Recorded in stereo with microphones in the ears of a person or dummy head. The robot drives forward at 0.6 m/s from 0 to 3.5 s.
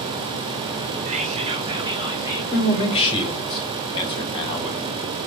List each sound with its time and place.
1.1 s whispering: 40° right (ahead or behind), 0.7 m; by 2.4 s 20° right (ahead or behind), 1.4 m
2.5 s a man speaking: 40° left (ahead or behind), 1.1 m; by 5.0 s 25° left (ahead or behind), 1.5 m